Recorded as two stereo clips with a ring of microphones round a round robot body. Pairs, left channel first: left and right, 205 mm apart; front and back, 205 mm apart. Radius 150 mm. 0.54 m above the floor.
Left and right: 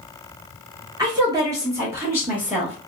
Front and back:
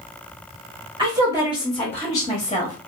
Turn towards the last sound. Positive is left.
turn(degrees=-5)